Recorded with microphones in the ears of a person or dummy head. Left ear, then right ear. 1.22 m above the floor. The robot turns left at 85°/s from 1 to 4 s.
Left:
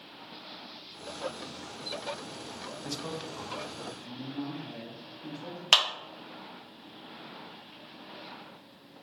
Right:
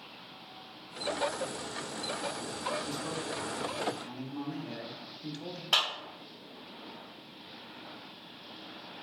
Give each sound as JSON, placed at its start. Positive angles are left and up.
{"t": 2.8, "sound": "a man speaking", "azimuth_deg": 50, "distance_m": 0.6}
{"t": 5.7, "sound": "a clap", "side_deg": 65, "distance_m": 0.8}